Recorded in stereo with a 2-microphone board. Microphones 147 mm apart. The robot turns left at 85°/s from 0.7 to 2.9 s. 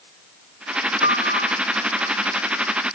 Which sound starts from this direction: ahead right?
A piano, at 1.0 s.